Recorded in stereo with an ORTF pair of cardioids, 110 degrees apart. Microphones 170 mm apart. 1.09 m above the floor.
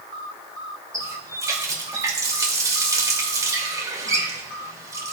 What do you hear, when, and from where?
0.9 s a running tap: 20° right, 2.5 m